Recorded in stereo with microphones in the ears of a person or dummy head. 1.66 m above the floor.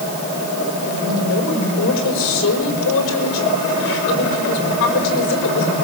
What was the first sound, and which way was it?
A woman speaking, 65° left (ahead or behind).